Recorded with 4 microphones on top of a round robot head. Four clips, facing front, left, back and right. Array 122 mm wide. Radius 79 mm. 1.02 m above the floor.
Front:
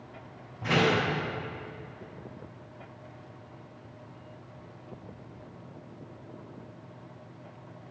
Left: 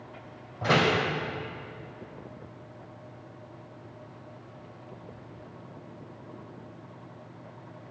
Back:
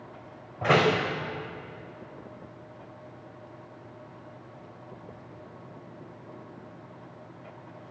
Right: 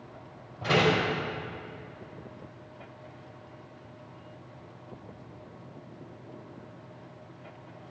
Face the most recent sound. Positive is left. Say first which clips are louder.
# even, back 3 dB
turn(degrees=160)